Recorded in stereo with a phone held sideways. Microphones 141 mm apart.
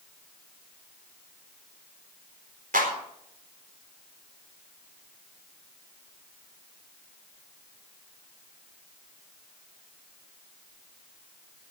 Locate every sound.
2.7 s a clap: 85° right, 4 m